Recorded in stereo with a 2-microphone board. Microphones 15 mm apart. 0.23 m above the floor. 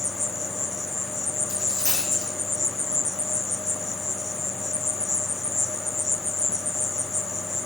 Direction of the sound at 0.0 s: 45° left (ahead or behind).